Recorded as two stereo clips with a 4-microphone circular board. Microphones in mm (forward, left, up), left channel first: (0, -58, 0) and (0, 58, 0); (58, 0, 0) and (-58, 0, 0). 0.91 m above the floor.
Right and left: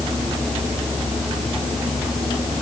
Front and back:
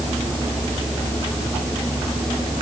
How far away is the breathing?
I don't hear breathing.